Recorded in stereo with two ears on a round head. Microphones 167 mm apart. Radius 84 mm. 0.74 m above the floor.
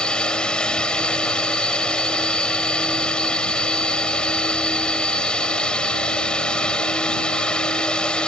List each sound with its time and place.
0.0 s a drone: 5° left (ahead or behind)